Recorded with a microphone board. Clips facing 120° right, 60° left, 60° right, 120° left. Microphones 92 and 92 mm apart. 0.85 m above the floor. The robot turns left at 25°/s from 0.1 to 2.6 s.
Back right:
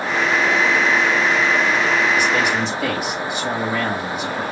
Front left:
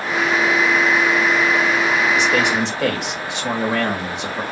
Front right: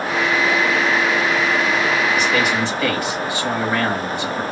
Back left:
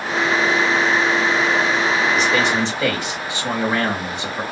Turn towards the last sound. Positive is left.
turn(degrees=55)